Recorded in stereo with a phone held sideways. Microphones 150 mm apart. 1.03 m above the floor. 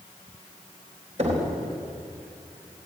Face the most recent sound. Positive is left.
turn(degrees=-50)  # may be behind; listen again after turning